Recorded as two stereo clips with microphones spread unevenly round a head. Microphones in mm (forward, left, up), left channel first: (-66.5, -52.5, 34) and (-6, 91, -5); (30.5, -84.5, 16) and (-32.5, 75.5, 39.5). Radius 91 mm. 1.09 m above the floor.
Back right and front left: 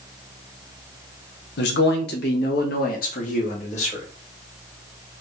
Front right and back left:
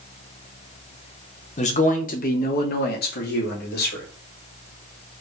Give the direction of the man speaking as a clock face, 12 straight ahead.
3 o'clock.